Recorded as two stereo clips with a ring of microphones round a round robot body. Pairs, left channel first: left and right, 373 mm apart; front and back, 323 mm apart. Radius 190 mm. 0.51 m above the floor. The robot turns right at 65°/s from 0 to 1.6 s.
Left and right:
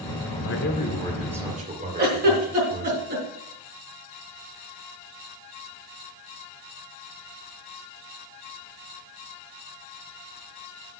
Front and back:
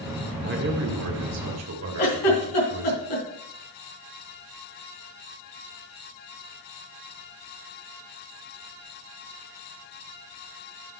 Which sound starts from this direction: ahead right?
A giggle, at 2.0 s.